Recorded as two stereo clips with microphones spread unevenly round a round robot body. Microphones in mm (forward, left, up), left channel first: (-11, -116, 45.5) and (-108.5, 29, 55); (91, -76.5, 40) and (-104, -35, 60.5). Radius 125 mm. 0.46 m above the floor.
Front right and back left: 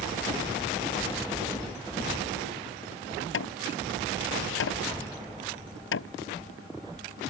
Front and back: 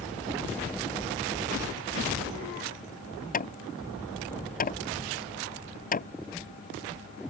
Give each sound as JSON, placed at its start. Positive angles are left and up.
{"t": 3.3, "sound": "hammering", "azimuth_deg": -60}